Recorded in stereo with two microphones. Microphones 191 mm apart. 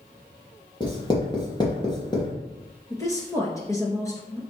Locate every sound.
0.8 s writing: 25° left (ahead or behind), 2.5 m
2.9 s a woman speaking: 15° left (ahead or behind), 2.5 m